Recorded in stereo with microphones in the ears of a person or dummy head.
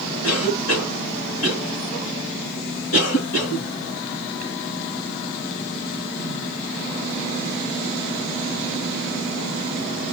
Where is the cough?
70° left (ahead or behind), 2.5 m.